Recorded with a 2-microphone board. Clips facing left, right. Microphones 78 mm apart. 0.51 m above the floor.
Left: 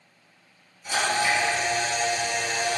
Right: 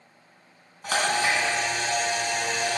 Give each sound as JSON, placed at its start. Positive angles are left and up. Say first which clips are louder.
{"t": 0.8, "sound": "a camera shutter", "louder": "even", "side_deg": -80, "distance_m": 2.5}